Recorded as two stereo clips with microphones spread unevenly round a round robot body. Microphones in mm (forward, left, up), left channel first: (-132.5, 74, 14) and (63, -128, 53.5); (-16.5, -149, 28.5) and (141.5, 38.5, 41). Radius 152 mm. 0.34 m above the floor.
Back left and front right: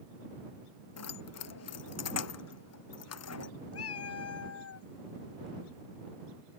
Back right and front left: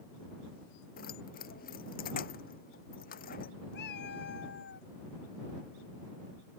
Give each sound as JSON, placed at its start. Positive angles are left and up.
{"t": 1.0, "sound": "keys jangling", "azimuth_deg": 165}
{"t": 3.7, "sound": "a cat meowing", "azimuth_deg": 170}